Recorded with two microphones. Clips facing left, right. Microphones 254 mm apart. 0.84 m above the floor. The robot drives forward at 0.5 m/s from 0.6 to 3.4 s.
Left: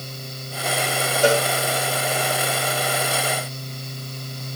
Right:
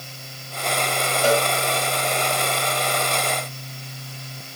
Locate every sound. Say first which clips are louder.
1.2 s a cowbell: left 2 dB; 85° left, 2 m; by 1.4 s 80° left, 2 m